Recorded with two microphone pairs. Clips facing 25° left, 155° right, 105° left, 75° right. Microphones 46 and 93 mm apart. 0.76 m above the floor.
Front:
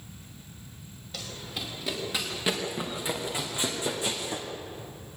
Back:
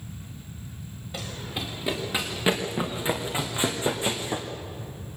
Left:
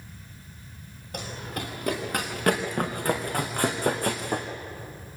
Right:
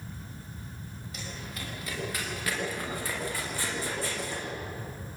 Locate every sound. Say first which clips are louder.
1.1 s running footsteps: back 4 dB, left 8 dB; 135° left, 5 m; by 4.5 s 140° left, 3.5 m